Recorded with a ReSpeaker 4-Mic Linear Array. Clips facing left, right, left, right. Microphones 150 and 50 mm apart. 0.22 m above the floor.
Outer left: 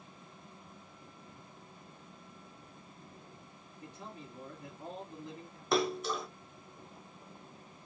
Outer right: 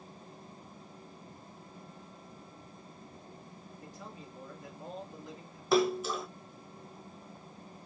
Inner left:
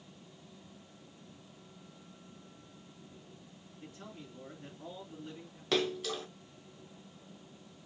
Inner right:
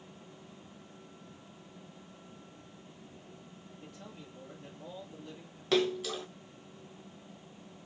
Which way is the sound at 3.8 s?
25° left (ahead or behind).